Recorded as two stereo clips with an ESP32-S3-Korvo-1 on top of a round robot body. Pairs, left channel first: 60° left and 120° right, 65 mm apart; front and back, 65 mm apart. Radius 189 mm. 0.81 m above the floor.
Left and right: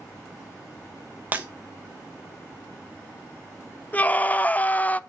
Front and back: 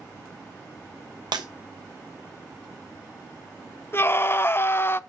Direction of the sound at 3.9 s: 15° left.